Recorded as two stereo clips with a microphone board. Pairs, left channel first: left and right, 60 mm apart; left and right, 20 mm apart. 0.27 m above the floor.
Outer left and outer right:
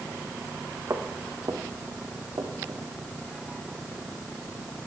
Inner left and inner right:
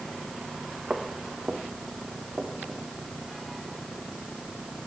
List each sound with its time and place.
0.9 s footsteps: 70° right (ahead or behind), 2 m; by 2.8 s 55° right (ahead or behind), 3 m